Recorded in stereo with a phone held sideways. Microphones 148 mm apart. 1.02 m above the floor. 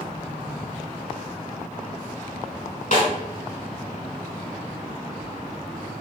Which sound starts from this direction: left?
A snare drum, at 2.9 s.